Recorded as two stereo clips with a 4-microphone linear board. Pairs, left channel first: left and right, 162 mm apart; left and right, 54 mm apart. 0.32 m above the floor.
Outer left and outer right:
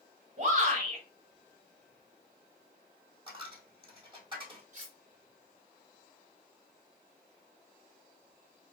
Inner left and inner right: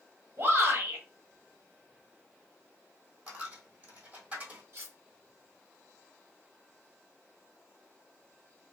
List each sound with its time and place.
0.4 s a shout: 50° right (ahead or behind), 1.3 m
3.3 s a dropped coin: 30° right (ahead or behind), 1.4 m
4.7 s cutlery clinking: 50° right (ahead or behind), 1.1 m